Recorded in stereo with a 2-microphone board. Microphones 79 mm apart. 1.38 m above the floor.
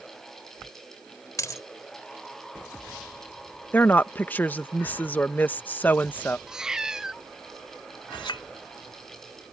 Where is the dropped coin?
40° left (ahead or behind).